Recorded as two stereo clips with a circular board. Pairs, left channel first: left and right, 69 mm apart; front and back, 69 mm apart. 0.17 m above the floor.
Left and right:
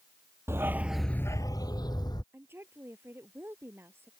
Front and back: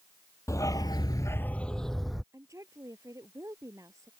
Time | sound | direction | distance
0.5 | a dog barking | 40° right | ?
2.3 | a woman speaking | 145° right | ?